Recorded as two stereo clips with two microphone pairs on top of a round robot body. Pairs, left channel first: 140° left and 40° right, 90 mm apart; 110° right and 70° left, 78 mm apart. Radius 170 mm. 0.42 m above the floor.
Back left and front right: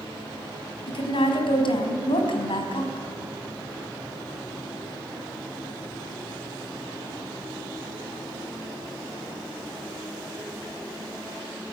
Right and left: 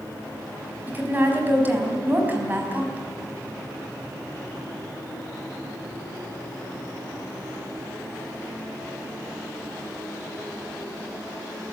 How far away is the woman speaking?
About 4 m.